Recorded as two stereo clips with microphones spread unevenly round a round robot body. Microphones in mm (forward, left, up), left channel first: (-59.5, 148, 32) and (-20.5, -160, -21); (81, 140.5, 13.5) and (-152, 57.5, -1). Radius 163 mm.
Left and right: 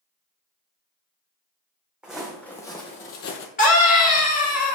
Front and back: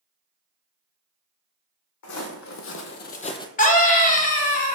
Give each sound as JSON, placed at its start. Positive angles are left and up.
{"t": 2.0, "sound": "footsteps", "azimuth_deg": 10, "distance_m": 1.1}
{"t": 3.6, "sound": "a scream", "azimuth_deg": 40, "distance_m": 0.9}